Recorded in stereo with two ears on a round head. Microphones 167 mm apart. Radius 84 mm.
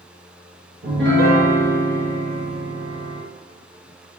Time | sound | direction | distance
0.8 | a piano | 60° right (ahead or behind) | 0.7 m